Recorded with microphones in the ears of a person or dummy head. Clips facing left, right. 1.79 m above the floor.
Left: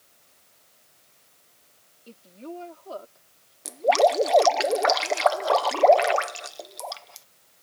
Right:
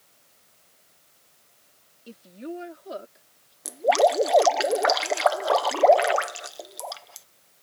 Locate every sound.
2.1 s a woman speaking: 10° right (ahead or behind); by 3.5 s 20° right (ahead or behind)
3.6 s dripping: 5° right (ahead or behind)